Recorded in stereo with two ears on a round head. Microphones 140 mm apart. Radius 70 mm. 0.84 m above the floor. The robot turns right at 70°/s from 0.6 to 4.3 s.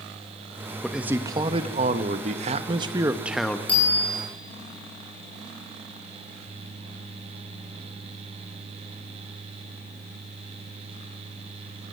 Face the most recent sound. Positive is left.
turn(degrees=-145)